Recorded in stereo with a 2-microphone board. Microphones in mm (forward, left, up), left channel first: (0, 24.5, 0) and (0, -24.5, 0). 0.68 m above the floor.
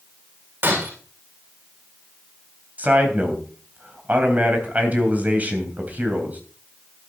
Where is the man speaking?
35° right (ahead or behind), 3.5 m.